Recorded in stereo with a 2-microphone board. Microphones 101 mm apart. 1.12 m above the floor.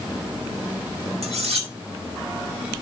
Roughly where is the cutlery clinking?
Right.